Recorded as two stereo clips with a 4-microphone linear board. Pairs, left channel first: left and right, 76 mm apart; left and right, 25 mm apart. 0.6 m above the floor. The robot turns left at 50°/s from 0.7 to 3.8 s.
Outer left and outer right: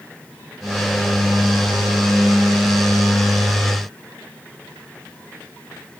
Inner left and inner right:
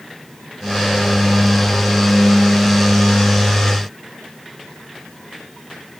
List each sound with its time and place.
Only background noise.